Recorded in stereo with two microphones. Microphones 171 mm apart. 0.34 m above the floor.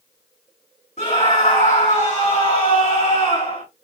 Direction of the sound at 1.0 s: 45° left (ahead or behind).